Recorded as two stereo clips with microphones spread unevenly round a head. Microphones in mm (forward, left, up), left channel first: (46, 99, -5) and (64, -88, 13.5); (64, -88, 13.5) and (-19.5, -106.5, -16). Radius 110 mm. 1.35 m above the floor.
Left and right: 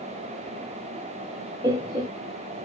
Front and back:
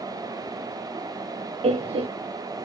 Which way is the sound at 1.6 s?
160° right.